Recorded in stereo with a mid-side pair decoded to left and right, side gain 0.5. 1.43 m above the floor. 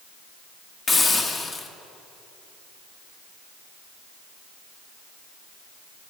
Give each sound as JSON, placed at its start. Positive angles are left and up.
{"t": 0.9, "sound": "a hiss", "azimuth_deg": 35, "distance_m": 1.4}